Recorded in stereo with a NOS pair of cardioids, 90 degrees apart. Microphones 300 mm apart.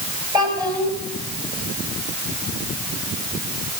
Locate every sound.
0.3 s a child speaking: 15° right, 6.5 m